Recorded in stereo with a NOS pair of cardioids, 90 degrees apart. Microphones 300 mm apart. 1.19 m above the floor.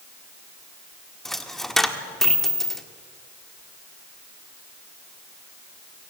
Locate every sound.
1.2 s a dropped coin: straight ahead, 1.6 m